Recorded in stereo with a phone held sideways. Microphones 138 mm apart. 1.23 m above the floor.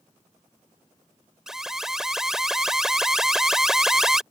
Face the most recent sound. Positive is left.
turn(degrees=-5)  # may be behind; listen again after turning